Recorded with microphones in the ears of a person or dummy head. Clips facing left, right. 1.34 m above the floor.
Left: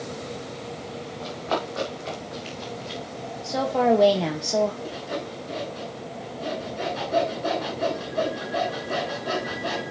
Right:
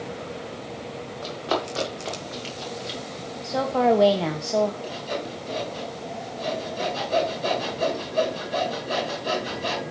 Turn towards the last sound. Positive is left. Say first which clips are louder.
# right 1 dB
turn(degrees=-45)  # may be behind; listen again after turning